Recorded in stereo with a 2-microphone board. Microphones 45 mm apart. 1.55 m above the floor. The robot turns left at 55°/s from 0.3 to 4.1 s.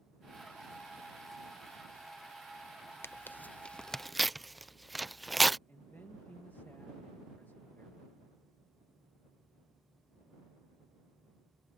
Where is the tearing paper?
60° left (ahead or behind); by 5.6 s centre (ahead or behind).